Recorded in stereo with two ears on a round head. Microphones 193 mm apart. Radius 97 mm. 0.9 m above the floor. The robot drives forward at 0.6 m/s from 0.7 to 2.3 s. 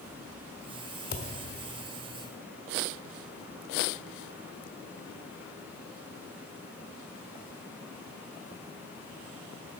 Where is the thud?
45° left (ahead or behind), 1.3 m; by 1.3 s 50° left (ahead or behind), 1.2 m.